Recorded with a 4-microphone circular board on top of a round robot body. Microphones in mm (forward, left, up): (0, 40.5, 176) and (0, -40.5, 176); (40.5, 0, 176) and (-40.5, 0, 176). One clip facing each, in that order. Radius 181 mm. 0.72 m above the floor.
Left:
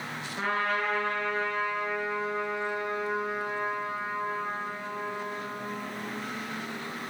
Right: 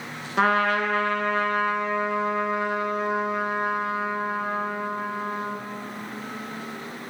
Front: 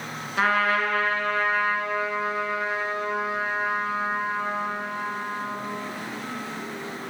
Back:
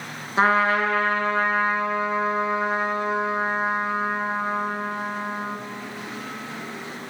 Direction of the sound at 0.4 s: 120° right.